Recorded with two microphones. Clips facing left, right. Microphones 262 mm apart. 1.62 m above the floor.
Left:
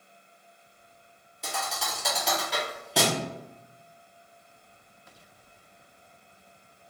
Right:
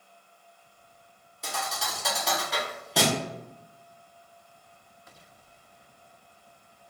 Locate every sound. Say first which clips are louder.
1.4 s a thud: even; centre (ahead or behind), 1.0 m